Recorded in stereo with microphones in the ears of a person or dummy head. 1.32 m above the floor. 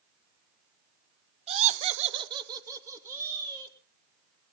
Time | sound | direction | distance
1.5 | laughter | 30° right (ahead or behind) | 0.5 m